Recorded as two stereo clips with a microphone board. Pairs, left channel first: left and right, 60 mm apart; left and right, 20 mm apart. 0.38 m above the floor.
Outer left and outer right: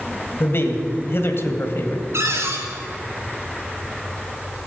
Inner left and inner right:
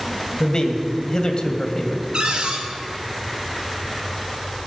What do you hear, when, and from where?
0.4 s a man speaking: 40° left (ahead or behind), 2 m
2.1 s a cupboard door: 50° right (ahead or behind), 3 m